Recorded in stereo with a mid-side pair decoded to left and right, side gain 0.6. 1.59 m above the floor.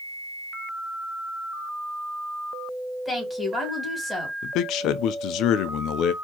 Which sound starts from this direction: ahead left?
A man speaking, at 4.4 s.